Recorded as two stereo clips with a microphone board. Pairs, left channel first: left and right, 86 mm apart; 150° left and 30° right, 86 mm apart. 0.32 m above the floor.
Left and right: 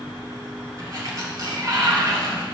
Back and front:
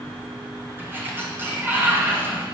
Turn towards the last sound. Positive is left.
turn(degrees=-80)